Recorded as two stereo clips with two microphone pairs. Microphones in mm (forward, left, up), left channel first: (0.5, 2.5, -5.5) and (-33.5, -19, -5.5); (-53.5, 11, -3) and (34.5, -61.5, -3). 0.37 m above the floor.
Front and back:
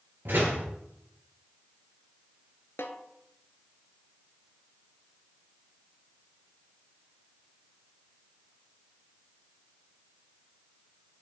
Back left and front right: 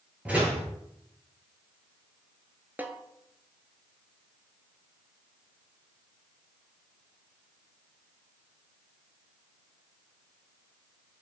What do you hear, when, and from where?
0.2 s a door slam: 115° right, 4 m
2.8 s a snare drum: 35° left, 0.8 m